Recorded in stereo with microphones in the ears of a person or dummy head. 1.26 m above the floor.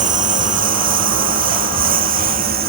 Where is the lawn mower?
35° right (ahead or behind); by 2.7 s 40° right (ahead or behind).